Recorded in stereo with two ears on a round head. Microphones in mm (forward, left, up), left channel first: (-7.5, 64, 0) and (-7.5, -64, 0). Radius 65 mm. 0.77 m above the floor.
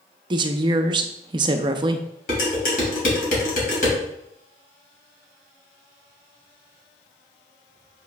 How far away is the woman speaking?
About 0.5 m.